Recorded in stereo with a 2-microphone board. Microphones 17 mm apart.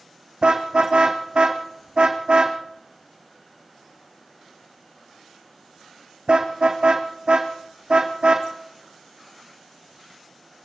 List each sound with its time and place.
0.4 s a car horn: 65° right (ahead or behind), 3.5 m